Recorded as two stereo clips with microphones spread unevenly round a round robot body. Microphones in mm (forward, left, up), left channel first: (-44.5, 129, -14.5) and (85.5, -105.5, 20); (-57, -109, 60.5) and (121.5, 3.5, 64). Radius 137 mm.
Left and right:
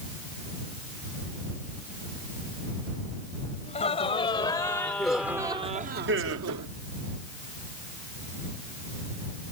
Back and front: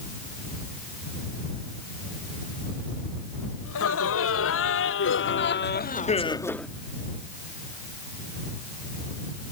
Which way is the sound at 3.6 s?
170° right.